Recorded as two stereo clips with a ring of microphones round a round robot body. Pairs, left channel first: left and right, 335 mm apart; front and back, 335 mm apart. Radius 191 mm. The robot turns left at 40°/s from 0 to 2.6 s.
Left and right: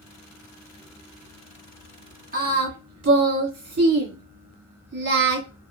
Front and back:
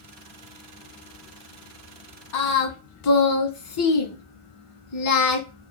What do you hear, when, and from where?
2.3 s singing: 25° right, 1.6 m; by 5.5 s 35° right, 1.6 m